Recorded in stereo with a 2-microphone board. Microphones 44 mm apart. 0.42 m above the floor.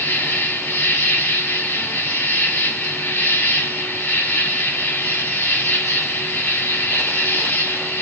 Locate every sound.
0.0 s an insect: 70° left (ahead or behind), 1.6 m